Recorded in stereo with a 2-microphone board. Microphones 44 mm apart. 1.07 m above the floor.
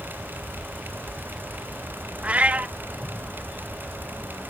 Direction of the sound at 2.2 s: 30° right (ahead or behind).